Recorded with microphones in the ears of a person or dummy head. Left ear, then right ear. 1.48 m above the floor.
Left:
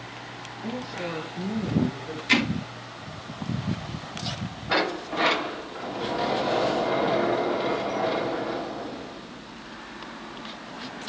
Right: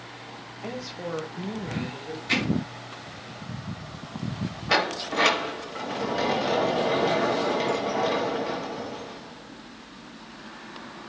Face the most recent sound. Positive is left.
turn(degrees=-70)  # may be behind; listen again after turning